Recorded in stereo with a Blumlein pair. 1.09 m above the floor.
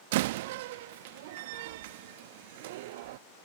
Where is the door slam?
50° right.